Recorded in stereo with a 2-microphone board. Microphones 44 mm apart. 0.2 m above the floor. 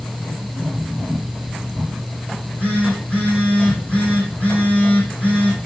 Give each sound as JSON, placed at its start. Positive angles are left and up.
{"t": 2.3, "sound": "a phone buzzing", "side_deg": 35, "distance_m": 3.0}